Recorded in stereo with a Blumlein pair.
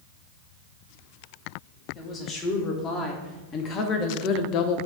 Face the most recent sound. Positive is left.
turn(degrees=45)